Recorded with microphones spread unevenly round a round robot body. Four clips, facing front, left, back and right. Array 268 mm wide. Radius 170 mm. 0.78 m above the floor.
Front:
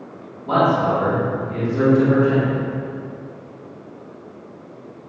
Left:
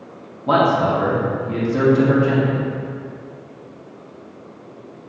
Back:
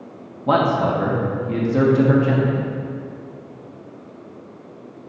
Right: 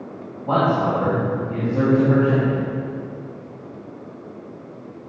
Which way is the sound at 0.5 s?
150° left.